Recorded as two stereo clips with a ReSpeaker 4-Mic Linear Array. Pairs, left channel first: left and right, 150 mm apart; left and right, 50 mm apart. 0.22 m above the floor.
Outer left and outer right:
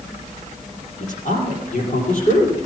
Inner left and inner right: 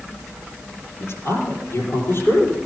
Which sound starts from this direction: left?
A man speaking, at 1.0 s.